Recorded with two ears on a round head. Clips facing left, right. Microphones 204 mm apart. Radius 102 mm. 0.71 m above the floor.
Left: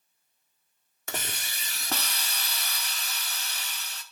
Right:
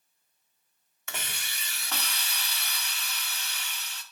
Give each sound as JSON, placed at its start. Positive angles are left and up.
{"t": 1.1, "sound": "a hiss", "side_deg": 30, "distance_m": 1.5}